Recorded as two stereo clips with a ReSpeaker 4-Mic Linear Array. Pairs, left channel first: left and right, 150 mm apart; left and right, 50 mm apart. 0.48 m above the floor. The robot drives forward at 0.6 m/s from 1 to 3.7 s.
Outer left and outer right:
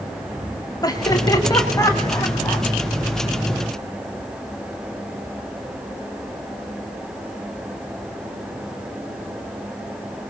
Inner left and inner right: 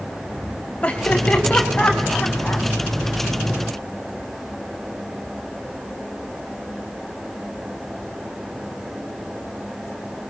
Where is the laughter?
25° left (ahead or behind), 3 m; by 2.6 s 20° left (ahead or behind), 3.5 m.